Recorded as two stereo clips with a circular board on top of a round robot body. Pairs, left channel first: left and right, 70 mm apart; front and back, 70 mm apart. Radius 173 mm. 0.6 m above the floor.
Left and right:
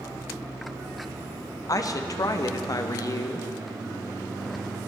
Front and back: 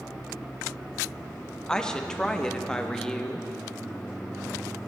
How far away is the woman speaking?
About 1.2 m.